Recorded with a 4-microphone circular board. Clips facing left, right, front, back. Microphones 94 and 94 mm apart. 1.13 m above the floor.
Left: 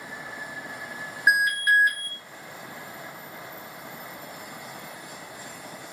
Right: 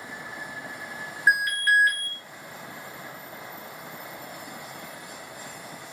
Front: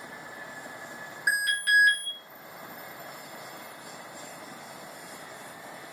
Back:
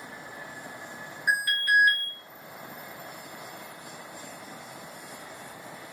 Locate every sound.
1.3 s an alarm: 15° left, 1.1 m